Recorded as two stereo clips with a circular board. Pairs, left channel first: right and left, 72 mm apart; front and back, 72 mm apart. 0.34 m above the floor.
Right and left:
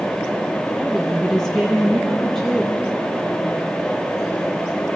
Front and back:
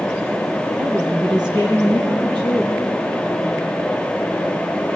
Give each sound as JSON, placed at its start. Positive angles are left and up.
{"t": 0.8, "sound": "a woman speaking", "azimuth_deg": -175, "distance_m": 8.5}